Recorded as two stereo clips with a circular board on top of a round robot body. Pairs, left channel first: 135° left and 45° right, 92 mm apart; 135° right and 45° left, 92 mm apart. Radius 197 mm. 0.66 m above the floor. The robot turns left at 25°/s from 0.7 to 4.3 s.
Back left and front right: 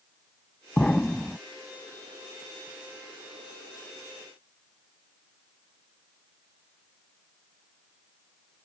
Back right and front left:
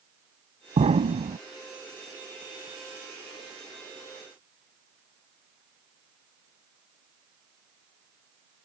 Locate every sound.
0.8 s an explosion: 55° left; by 1.4 s 40° left